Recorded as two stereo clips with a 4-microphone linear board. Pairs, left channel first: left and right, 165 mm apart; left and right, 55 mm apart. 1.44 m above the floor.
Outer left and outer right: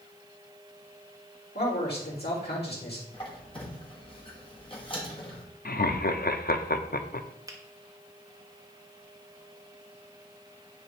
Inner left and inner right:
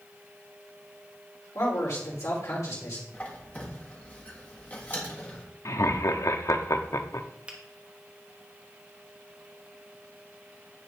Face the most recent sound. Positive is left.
turn(degrees=-20)  # may be behind; listen again after turning